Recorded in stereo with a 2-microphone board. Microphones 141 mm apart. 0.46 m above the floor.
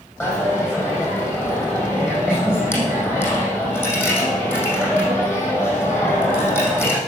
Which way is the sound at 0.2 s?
15° left (ahead or behind).